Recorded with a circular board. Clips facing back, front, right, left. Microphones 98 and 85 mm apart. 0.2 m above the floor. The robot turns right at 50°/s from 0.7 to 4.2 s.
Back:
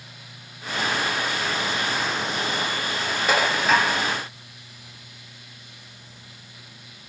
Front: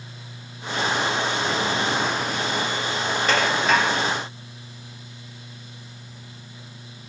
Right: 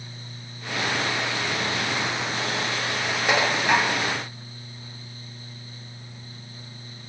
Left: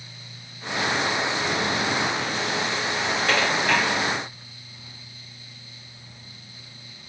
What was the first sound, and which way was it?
Dishes clattering, 120° right.